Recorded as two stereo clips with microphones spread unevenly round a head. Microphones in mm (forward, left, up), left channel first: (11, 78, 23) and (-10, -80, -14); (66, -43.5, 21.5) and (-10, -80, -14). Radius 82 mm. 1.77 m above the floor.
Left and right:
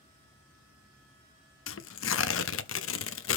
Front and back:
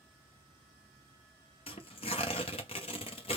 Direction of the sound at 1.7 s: 75° left.